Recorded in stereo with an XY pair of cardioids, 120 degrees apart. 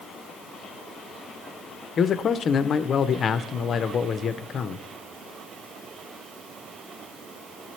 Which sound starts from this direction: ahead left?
A man speaking, at 2.0 s.